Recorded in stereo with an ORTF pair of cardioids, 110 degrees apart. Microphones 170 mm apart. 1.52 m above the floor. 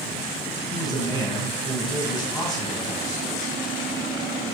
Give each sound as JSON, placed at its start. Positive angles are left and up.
{"t": 0.7, "sound": "a man speaking", "azimuth_deg": 10, "distance_m": 4.5}